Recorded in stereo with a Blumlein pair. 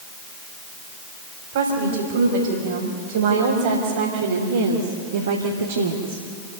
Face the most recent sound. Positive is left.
turn(degrees=-70)